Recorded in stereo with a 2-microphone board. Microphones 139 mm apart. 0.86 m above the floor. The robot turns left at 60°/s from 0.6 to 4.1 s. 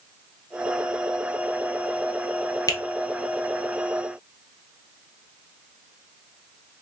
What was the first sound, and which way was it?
A finger snap, 25° left (ahead or behind).